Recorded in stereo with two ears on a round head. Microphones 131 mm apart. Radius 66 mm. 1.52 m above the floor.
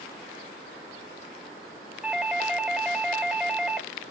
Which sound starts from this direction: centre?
A doorbell, at 2.0 s.